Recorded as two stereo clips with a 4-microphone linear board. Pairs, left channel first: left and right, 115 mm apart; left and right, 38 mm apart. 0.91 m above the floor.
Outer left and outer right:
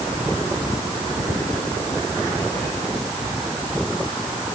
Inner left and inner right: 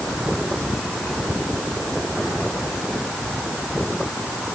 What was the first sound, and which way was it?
Only background noise.